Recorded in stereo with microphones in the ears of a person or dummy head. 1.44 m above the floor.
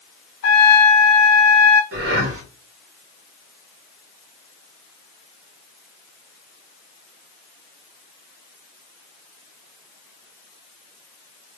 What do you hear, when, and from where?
0.4 s a trumpet: 60° left (ahead or behind), 0.7 m
1.9 s breathing: 70° right (ahead or behind), 1.0 m